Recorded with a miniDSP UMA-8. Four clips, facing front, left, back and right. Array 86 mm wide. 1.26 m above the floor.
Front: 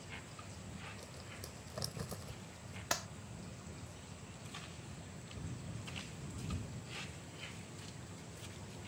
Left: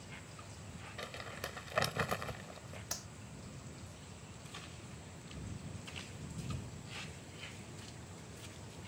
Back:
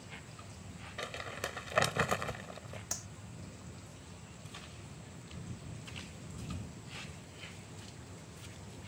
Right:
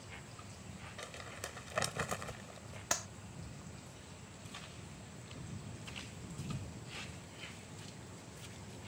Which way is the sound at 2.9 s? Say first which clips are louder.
Right 12 dB, front 9 dB; 45° right.